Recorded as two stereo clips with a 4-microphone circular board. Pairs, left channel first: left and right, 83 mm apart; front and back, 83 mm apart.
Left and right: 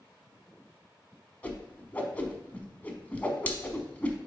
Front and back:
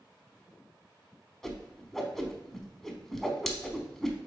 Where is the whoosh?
75° left, 1.0 m.